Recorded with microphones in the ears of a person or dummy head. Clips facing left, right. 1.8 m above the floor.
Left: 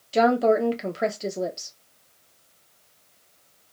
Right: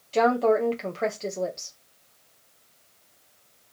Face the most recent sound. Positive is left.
turn(degrees=15)  # may be behind; listen again after turning